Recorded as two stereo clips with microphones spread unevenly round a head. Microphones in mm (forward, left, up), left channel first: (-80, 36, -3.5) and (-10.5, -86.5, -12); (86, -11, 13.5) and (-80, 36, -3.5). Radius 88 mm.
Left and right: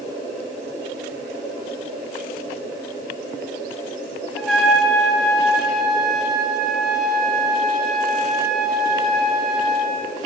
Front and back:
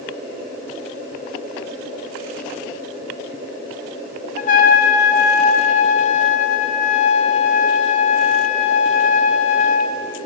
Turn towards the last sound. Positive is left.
turn(degrees=25)